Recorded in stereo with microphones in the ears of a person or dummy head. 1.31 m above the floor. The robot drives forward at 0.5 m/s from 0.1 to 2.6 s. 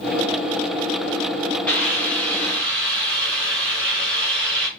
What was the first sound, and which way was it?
A hiss, 10° left (ahead or behind).